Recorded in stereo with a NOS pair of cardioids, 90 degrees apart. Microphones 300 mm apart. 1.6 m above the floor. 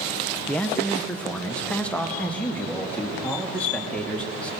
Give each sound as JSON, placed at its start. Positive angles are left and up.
{"t": 0.5, "sound": "a man speaking", "azimuth_deg": 5, "distance_m": 1.5}